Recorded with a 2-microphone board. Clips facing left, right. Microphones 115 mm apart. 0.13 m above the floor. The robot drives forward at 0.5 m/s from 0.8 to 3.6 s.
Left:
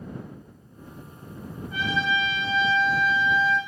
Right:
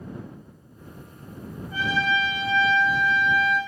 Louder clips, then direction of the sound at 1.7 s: Right 1 dB; 35° right (ahead or behind).